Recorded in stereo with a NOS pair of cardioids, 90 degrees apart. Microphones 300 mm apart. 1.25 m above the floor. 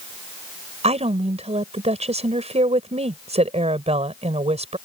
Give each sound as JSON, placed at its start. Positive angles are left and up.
{"t": 0.8, "sound": "a woman speaking", "azimuth_deg": -20}